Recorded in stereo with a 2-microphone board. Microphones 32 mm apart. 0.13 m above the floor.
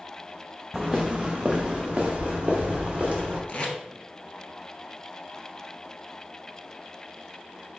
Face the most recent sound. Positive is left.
turn(degrees=40)  # may be behind; listen again after turning